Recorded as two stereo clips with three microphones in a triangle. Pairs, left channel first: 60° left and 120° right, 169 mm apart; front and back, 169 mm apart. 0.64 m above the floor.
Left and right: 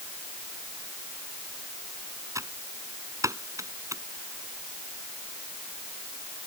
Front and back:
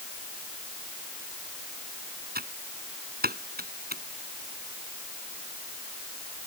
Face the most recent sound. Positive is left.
turn(degrees=170)